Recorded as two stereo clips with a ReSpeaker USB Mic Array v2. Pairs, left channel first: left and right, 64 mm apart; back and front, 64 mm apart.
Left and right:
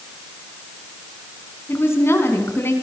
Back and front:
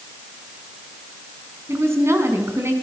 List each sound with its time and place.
1.7 s a woman speaking: 45° left, 5.5 m